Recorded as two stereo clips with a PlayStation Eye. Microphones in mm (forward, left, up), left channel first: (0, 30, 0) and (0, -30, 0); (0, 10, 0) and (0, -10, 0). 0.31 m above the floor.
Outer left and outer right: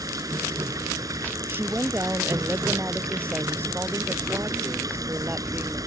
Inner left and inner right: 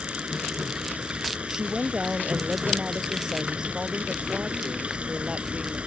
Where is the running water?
75° right (ahead or behind).